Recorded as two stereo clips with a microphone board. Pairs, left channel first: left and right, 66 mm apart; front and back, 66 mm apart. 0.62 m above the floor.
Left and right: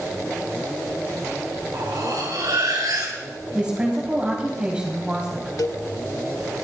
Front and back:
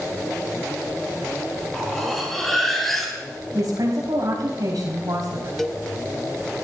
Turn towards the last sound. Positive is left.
turn(degrees=85)